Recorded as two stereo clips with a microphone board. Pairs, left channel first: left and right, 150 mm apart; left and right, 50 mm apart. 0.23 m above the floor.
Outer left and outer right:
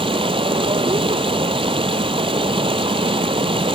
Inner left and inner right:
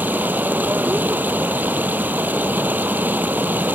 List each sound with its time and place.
0.0 s running water: 40° right (ahead or behind), 0.8 m